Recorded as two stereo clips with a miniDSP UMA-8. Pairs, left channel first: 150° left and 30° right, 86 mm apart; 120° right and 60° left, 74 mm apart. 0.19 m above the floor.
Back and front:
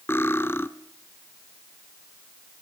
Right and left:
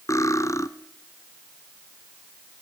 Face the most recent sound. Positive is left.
turn(degrees=-150)